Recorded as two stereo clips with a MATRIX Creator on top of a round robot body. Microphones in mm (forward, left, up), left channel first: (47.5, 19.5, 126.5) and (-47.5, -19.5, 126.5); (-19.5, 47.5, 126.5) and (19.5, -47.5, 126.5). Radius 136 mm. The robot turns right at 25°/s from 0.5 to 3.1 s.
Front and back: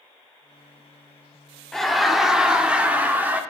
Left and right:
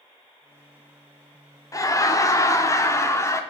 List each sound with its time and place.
1.7 s laughter: 110° left, 1.0 m; by 3.4 s 140° left, 1.0 m